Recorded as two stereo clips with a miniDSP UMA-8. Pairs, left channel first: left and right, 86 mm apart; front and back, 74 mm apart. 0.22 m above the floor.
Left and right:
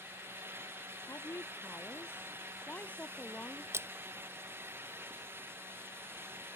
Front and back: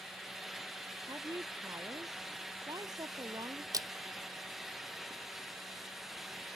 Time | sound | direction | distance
1.1 | a woman speaking | 145° left | ?
3.7 | a splash | 150° right | ?